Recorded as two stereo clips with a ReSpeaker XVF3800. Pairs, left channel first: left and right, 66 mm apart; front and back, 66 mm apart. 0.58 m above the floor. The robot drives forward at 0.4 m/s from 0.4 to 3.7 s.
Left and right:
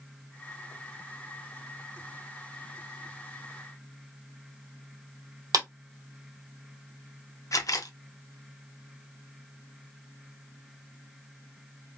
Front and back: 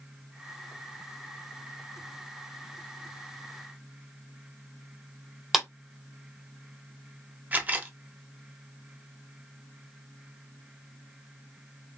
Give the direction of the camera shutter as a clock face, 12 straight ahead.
8 o'clock.